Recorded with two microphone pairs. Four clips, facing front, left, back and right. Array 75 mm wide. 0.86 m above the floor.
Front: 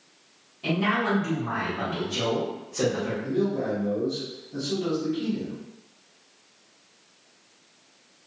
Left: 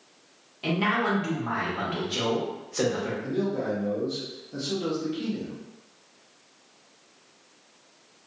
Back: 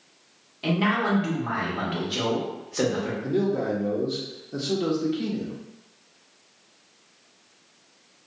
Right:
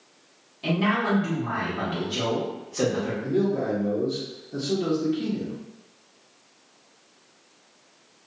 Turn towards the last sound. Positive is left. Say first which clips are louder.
# right 5 dB, back 2 dB
turn(degrees=175)